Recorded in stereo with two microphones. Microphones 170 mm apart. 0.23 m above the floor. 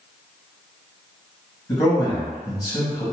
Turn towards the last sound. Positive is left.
turn(degrees=25)  # may be behind; listen again after turning